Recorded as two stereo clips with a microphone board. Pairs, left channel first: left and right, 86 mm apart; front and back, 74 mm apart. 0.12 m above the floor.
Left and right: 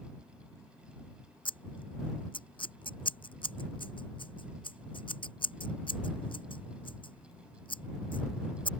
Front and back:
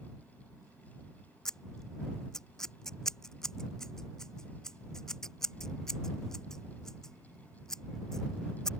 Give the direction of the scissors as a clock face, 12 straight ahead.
9 o'clock.